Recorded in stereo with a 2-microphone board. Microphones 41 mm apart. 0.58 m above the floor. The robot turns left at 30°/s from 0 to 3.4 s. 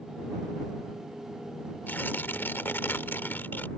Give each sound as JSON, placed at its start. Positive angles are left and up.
{"t": 1.9, "sound": "tearing paper", "azimuth_deg": 115}